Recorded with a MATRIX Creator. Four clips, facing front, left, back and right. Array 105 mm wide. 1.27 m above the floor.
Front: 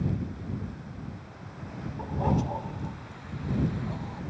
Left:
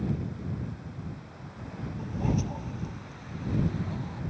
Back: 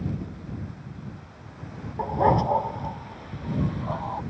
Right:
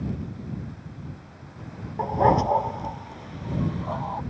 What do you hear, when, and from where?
2.0 s a dog barking: 125° right; by 4.2 s 135° right